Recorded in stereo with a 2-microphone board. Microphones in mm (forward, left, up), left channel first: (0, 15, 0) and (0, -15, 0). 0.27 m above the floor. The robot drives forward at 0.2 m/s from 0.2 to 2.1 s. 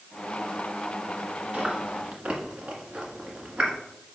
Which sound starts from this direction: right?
Chewing, at 1.5 s.